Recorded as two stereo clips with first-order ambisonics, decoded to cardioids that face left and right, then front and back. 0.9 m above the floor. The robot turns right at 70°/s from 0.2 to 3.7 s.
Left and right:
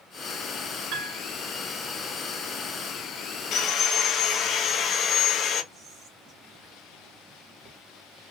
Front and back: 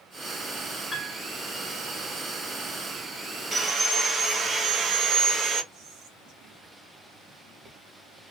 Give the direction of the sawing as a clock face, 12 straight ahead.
8 o'clock.